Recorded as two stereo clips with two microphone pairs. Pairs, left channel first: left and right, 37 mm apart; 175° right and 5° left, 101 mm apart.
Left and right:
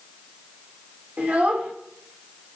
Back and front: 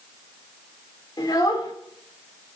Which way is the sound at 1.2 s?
130° right.